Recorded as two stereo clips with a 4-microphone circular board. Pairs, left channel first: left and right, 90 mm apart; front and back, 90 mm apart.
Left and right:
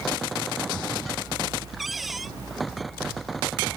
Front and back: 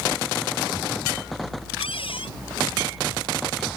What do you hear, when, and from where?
1.8 s a cupboard door: straight ahead